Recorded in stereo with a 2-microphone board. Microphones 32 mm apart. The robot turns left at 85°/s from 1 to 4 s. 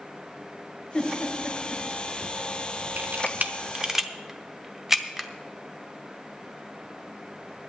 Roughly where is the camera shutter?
Right.